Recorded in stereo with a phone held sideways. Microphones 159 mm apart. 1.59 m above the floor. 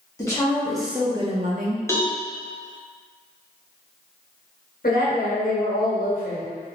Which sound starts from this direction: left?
A woman speaking, at 4.8 s.